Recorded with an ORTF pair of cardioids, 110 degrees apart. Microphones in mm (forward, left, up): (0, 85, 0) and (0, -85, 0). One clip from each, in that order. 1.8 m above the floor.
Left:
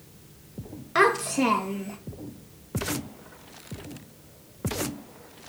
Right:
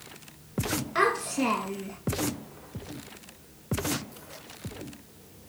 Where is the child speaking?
35° left, 2 m; by 2.0 s 15° left, 2 m.